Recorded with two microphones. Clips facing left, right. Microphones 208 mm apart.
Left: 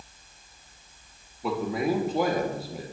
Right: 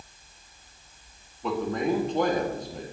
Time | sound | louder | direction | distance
1.4 | a man speaking | even | 5° left (ahead or behind) | 1.0 m